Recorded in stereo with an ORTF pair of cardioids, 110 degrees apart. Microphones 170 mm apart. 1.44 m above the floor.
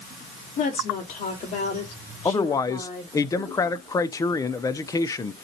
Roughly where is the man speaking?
Ahead.